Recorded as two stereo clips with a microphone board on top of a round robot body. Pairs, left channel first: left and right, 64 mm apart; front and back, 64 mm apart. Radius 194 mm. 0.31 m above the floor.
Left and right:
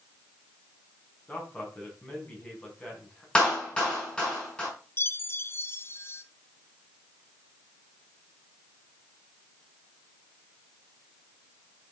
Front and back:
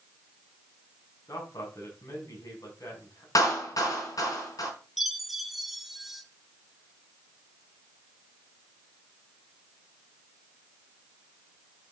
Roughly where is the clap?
Ahead.